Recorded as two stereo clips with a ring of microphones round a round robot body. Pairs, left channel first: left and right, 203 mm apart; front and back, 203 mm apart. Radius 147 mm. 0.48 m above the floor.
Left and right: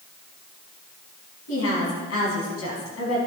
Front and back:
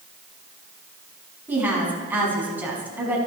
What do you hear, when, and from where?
1.5 s a woman speaking: 100° left, 5 m